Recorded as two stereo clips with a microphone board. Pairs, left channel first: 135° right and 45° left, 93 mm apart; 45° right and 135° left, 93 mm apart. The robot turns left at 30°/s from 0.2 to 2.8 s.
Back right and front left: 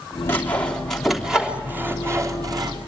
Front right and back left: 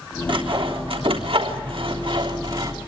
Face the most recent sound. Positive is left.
turn(degrees=85)